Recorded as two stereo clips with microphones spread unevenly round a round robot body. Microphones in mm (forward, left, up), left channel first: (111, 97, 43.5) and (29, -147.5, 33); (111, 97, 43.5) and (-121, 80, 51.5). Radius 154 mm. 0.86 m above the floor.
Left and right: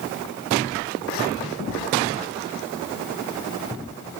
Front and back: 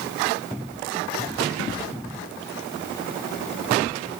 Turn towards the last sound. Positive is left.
No sound to turn to.